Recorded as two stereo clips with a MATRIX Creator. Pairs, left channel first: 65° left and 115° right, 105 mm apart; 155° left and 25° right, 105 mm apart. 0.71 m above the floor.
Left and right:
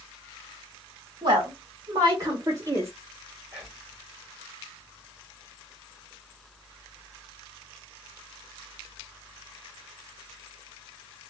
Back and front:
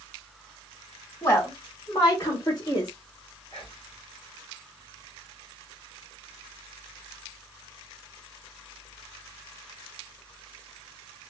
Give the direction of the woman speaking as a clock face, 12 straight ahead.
5 o'clock.